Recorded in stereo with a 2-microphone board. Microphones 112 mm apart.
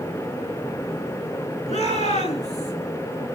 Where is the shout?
80° left, 7.5 m; by 2.7 s 75° left (ahead or behind), 8.5 m.